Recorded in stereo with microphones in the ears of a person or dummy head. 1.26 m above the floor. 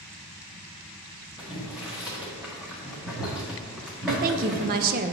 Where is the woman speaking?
45° right (ahead or behind), 0.5 m.